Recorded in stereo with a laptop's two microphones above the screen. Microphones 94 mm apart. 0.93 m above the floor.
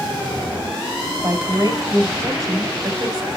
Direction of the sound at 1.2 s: 40° right (ahead or behind).